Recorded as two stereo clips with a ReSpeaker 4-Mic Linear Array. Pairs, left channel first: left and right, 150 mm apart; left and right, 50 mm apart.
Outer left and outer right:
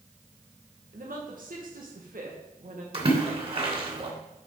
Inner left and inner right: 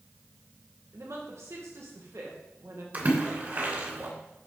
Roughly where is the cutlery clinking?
No cutlery clinking in this recording.